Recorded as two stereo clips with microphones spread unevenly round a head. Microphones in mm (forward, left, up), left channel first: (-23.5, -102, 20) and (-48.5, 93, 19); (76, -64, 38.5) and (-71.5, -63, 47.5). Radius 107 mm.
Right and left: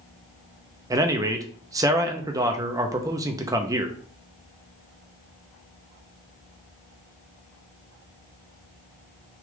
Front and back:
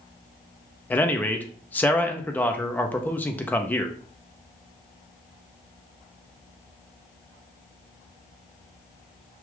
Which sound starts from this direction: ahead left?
A man speaking, at 0.9 s.